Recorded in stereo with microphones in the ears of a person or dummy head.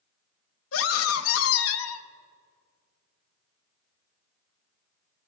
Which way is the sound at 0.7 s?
80° left.